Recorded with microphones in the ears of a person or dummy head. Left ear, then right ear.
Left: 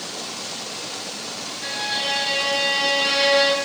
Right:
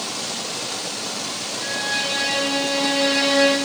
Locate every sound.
1.6 s a violin: 25° left (ahead or behind), 2.5 m